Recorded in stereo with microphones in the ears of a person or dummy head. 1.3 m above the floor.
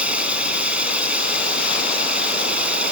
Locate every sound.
0.0 s running water: centre (ahead or behind)